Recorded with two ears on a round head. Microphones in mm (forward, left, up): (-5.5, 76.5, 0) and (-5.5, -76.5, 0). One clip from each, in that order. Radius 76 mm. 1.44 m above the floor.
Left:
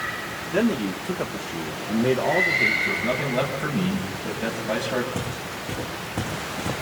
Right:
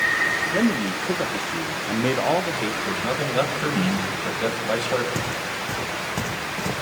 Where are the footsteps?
70° right (ahead or behind), 6 m; by 6.7 s 60° right (ahead or behind), 6 m.